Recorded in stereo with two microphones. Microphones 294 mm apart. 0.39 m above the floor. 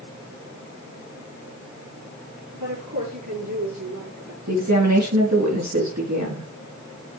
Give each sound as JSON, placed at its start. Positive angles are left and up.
{"t": 2.5, "sound": "a woman speaking", "side_deg": -80, "distance_m": 6.0}
{"t": 4.5, "sound": "a woman speaking", "side_deg": -65, "distance_m": 4.0}